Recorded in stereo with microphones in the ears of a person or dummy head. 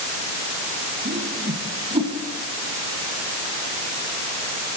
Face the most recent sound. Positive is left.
turn(degrees=-25)  # may be behind; listen again after turning